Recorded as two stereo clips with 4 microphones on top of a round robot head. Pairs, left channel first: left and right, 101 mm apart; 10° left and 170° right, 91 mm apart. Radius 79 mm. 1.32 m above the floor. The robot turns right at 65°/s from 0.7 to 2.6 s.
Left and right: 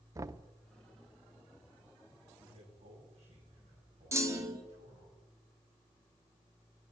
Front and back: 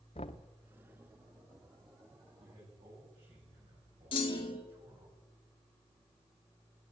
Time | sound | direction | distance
0.1 | knocking | 30° right | 0.7 m
2.4 | a man speaking | 140° right | 10 m
4.1 | a clunk | 30° right | 1.9 m